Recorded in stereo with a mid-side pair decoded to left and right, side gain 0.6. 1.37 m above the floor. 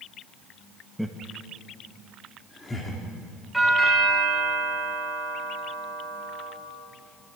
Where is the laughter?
5° left, 1.6 m; by 3.0 s 20° left, 3.5 m.